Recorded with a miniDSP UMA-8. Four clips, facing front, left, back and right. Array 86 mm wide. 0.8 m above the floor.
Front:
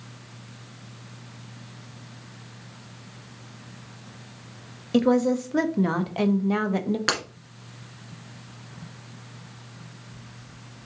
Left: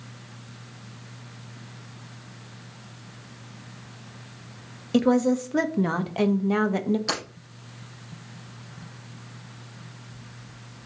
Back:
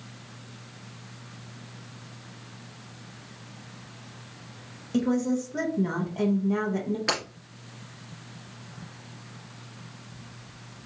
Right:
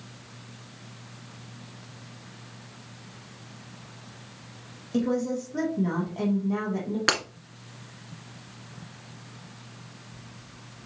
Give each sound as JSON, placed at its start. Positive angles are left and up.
{"t": 4.9, "sound": "a woman speaking", "azimuth_deg": 50, "distance_m": 0.6}
{"t": 7.1, "sound": "breaking glass", "azimuth_deg": -60, "distance_m": 1.8}